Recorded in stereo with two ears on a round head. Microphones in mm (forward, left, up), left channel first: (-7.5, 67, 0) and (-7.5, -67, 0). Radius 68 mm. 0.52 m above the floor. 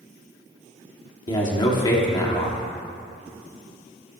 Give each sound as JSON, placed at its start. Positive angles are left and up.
{"t": 1.3, "sound": "a man speaking", "side_deg": 30, "distance_m": 1.3}